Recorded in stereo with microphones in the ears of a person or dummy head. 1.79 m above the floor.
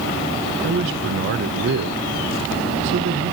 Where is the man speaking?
65° right (ahead or behind), 0.8 m.